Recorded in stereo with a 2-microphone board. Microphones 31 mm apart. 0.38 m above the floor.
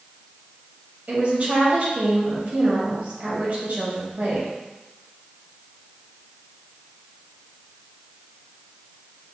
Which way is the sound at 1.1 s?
50° right (ahead or behind).